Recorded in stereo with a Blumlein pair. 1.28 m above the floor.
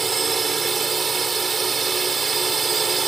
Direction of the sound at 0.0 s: 15° right.